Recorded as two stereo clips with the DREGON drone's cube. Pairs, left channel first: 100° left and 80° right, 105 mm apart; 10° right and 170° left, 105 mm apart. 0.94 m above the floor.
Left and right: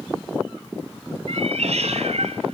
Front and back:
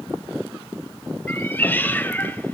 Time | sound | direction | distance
1.3 | a cat meowing | 80° right | 2.5 m